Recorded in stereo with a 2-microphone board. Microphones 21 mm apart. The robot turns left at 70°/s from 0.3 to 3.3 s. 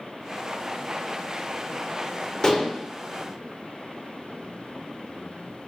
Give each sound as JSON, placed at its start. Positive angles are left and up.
{"t": 2.4, "sound": "dishes clattering", "side_deg": 35, "distance_m": 0.7}